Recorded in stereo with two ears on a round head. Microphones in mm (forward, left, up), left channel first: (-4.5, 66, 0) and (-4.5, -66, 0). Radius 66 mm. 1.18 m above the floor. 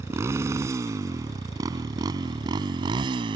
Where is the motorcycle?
20° right (ahead or behind); by 3.4 s 35° right (ahead or behind).